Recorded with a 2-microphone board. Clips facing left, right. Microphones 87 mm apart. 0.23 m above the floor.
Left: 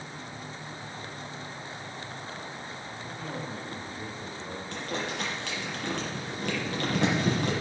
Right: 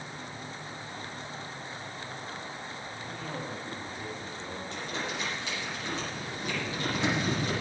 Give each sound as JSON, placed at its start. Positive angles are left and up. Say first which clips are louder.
{"t": 3.0, "sound": "a man speaking", "louder": "left 1 dB", "side_deg": 30, "distance_m": 5.5}
{"t": 4.7, "sound": "crumpling", "louder": "left 3 dB", "side_deg": 65, "distance_m": 7.0}